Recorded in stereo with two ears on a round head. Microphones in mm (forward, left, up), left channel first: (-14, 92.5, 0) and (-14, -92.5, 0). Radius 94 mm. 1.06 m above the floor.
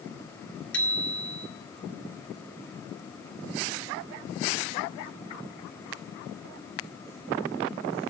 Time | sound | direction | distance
0.7 | a bicycle bell | 5° left (ahead or behind) | 2.5 m